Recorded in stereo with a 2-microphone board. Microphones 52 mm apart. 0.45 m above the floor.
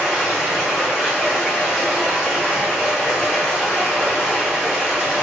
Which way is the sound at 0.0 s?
5° right (ahead or behind).